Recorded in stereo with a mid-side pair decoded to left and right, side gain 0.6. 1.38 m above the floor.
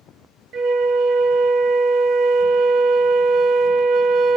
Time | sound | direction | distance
0.5 | a flute | 60° right | 0.5 m